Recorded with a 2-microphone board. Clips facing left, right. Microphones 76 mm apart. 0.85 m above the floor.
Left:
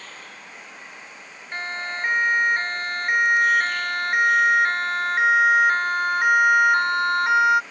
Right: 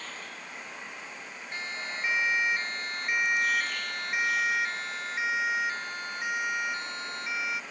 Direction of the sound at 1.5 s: 50° left (ahead or behind).